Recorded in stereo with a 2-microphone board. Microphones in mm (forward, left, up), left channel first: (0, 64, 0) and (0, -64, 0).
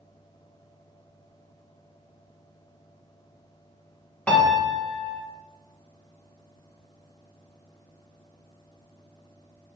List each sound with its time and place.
4.3 s a piano: 10° left (ahead or behind), 2.0 m